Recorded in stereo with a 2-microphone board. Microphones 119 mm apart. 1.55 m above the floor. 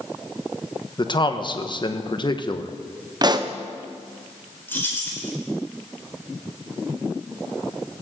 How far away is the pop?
About 0.9 m.